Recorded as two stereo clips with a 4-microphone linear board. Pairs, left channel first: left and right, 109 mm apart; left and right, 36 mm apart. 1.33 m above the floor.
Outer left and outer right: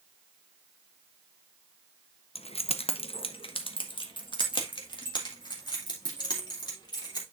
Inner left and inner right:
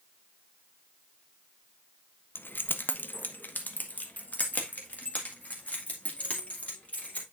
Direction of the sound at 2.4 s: 70° left (ahead or behind).